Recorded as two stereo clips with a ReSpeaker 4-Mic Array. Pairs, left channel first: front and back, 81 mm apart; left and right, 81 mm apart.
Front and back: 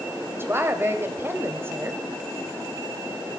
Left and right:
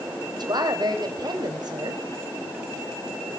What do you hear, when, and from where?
0.3 s a woman speaking: 120° right, 2.5 m